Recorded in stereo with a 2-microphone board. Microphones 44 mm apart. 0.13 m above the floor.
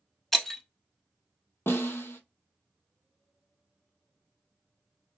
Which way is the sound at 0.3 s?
10° left (ahead or behind).